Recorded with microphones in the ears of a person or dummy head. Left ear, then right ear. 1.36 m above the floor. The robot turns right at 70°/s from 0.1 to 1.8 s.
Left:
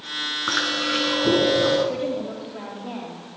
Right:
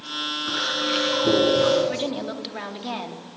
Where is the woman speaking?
45° right (ahead or behind), 3.5 m.